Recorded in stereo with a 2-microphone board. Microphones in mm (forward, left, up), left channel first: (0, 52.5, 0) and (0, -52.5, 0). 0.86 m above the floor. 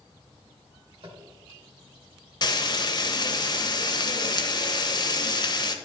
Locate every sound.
1.0 s tapping: 60° right (ahead or behind), 1.6 m
2.4 s frying: 45° left (ahead or behind), 0.8 m